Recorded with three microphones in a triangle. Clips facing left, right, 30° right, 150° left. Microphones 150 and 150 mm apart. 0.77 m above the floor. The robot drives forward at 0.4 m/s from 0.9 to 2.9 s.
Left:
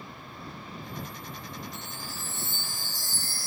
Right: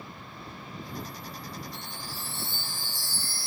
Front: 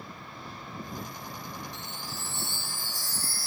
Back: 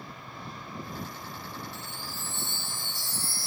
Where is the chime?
70° left; by 3.5 s 100° left.